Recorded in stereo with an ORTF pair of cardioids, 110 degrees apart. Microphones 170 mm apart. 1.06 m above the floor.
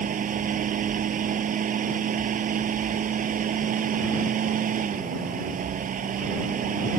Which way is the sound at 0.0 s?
50° right.